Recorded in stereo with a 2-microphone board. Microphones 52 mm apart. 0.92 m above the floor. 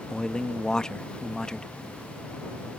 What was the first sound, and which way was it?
A man speaking, 15° left (ahead or behind).